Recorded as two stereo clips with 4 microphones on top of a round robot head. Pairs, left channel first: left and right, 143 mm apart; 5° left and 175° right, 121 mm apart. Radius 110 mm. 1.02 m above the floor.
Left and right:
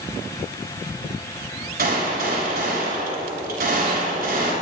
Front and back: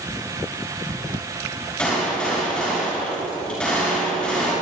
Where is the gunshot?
80° right, 7 m.